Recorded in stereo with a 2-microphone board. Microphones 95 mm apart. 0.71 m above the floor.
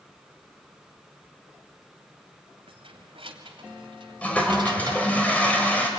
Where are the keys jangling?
85° right, 2.5 m; by 5.2 s 45° right (ahead or behind), 2 m.